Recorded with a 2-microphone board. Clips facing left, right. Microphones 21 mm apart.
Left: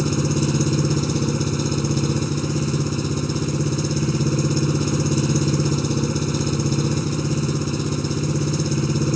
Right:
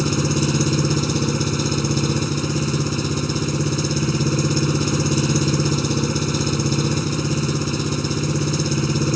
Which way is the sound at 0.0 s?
30° right (ahead or behind).